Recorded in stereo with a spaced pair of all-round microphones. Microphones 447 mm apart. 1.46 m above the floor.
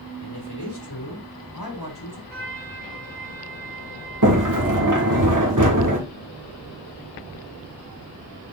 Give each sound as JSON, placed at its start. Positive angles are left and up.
{"t": 0.2, "sound": "a man speaking", "side_deg": 60, "distance_m": 3.0}
{"t": 2.3, "sound": "a trumpet", "side_deg": -55, "distance_m": 2.5}
{"t": 4.2, "sound": "a sliding door", "side_deg": -45, "distance_m": 1.6}